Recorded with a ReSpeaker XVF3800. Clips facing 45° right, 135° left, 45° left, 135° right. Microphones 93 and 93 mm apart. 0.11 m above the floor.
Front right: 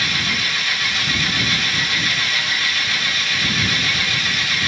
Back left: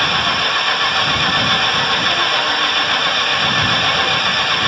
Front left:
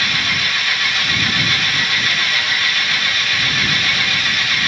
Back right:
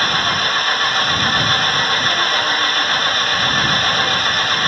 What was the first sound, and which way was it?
An engine running, 175° left.